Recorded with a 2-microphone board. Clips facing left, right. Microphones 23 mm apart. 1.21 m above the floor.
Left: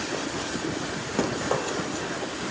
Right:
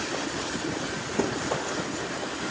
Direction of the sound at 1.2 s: 40° left (ahead or behind).